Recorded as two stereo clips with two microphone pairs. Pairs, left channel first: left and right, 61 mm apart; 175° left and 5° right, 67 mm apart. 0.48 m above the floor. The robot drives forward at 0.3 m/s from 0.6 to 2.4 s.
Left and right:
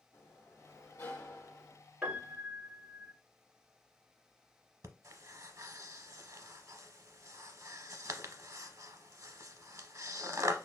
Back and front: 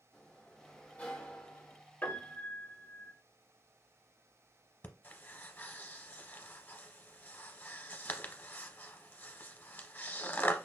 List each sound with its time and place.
0.1 s a sliding door: 105° left, 1.1 m; by 1.8 s 125° left, 1.2 m
2.0 s a piano: 160° right, 1.1 m; by 3.1 s 165° right, 1.2 m
4.8 s breathing: 130° right, 0.7 m